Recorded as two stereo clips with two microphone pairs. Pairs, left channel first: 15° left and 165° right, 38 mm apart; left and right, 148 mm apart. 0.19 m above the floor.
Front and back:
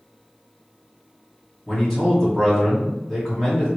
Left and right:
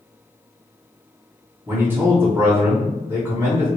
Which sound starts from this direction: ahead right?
A man speaking, at 1.7 s.